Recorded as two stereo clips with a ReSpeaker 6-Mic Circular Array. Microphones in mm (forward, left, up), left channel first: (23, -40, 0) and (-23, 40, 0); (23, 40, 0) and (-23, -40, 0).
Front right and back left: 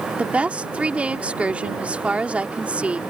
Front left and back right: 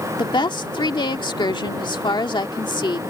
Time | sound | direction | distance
0.2 | a woman speaking | 50° left | ?